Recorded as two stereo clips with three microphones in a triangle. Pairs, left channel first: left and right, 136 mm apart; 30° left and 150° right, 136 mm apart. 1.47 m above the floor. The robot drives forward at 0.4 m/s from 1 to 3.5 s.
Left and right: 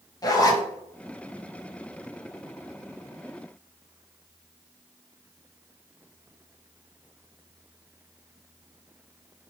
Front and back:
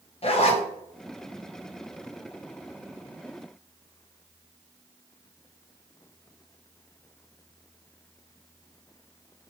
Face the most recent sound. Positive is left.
turn(degrees=145)